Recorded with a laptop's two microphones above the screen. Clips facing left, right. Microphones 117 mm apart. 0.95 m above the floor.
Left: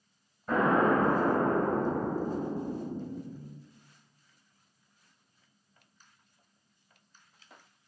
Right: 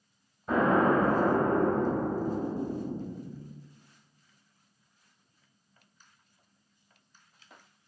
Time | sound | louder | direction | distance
0.5 | an explosion | right 1 dB | 10° right (ahead or behind) | 1.0 m